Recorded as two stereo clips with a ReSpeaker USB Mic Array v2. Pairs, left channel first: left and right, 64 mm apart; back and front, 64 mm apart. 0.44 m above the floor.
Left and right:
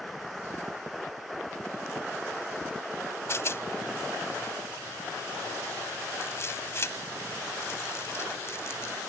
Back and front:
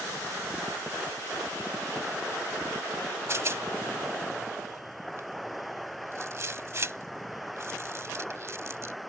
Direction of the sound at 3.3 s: 45° left.